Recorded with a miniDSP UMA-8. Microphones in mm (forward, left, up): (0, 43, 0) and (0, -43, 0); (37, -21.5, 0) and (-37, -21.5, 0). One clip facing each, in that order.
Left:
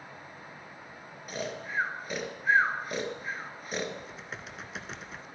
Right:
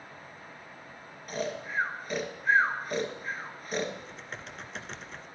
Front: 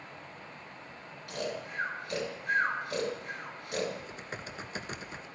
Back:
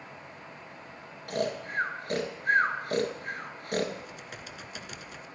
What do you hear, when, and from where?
1.3 s snoring: 175° left, 1.6 m
4.0 s typing on a keyboard: 10° left, 0.8 m